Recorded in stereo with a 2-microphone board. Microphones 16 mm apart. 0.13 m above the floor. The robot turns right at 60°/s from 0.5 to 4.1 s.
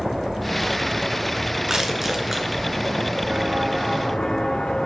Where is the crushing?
35° right (ahead or behind), 1.6 m; by 2.5 s 5° right (ahead or behind), 1.6 m.